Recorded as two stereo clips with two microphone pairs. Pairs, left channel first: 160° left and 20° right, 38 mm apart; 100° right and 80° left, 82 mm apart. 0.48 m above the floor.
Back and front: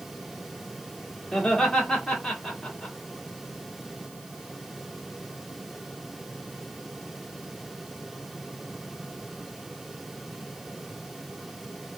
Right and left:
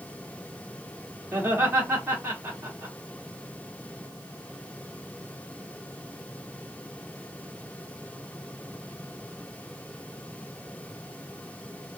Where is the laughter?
100° left, 1.3 m.